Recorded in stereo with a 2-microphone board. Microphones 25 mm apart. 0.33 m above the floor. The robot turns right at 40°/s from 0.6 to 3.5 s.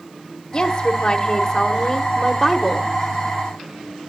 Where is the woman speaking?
20° left (ahead or behind), 1.3 m; by 2.9 s 5° left (ahead or behind), 1.3 m.